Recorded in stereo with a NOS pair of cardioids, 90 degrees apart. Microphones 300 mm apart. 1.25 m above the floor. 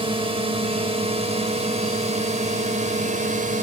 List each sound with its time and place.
0.0 s a drone: 20° right; by 3.6 s 25° right